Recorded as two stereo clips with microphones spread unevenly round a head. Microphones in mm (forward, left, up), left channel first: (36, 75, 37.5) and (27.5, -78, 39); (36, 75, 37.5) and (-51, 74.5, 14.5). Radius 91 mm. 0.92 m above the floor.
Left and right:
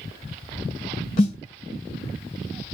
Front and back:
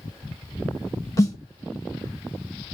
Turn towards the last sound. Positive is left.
turn(degrees=35)